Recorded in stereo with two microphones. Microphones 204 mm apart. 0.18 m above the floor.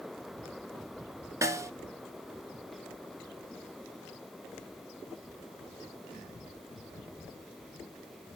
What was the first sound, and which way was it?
A snare drum, 15° right (ahead or behind).